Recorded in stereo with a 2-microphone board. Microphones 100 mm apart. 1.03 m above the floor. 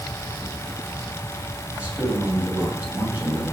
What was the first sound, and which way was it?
A man speaking, 15° right (ahead or behind).